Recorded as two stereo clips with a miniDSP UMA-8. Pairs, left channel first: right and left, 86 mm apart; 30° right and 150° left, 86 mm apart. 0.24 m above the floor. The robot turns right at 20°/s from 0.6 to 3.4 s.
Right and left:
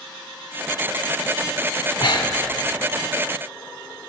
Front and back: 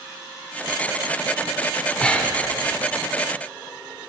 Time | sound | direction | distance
2.0 | breathing | 110° right | 0.6 m